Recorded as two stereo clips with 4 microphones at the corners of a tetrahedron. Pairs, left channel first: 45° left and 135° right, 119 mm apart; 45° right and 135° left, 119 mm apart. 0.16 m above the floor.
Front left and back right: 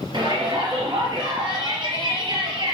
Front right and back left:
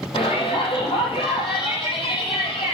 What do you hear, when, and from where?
0.1 s a shout: 85° right, 4.5 m